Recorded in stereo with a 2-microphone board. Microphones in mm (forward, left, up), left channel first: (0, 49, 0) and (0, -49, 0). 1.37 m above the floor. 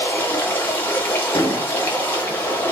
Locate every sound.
0.0 s running water: 20° left (ahead or behind), 1.0 m
1.4 s an explosion: 50° left (ahead or behind), 1.0 m